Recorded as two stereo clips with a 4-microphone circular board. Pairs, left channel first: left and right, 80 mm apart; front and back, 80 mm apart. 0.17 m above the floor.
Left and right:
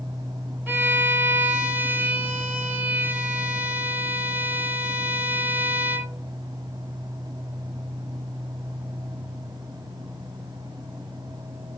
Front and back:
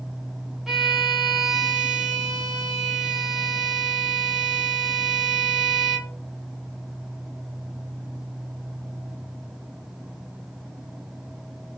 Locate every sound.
0.7 s a violin: 100° right, 0.8 m